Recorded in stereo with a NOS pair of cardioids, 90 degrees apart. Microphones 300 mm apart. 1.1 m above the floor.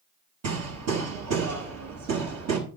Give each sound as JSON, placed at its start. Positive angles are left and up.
{"t": 0.4, "sound": "hammering", "azimuth_deg": -55, "distance_m": 5.5}